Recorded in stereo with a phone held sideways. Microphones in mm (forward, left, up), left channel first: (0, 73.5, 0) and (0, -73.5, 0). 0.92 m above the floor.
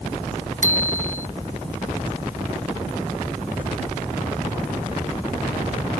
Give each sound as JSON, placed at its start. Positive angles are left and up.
{"t": 0.6, "sound": "a bicycle bell", "side_deg": -55}